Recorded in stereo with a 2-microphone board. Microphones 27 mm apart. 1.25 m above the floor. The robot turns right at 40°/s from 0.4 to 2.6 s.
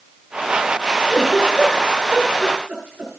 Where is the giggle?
10° right (ahead or behind), 8 m; by 3.1 s 70° right (ahead or behind), 8 m.